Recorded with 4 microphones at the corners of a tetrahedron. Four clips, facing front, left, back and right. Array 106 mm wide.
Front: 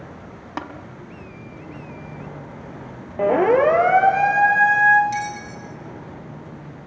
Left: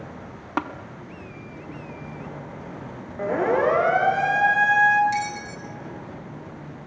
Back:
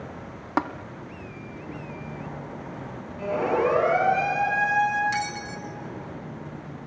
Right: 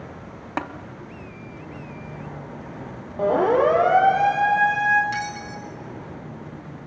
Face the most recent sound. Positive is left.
turn(degrees=-145)